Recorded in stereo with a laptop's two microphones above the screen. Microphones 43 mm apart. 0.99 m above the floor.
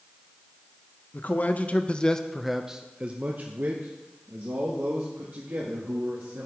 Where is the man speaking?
45° left (ahead or behind), 0.9 m; by 6.5 s 65° right (ahead or behind), 2.5 m.